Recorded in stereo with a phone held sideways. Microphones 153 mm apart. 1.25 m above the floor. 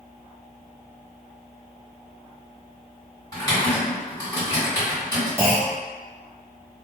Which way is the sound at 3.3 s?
20° left (ahead or behind).